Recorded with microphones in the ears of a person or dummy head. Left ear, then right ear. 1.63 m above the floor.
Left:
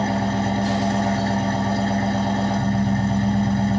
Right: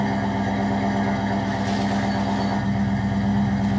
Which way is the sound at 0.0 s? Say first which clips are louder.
Left 1 dB; 15° left (ahead or behind).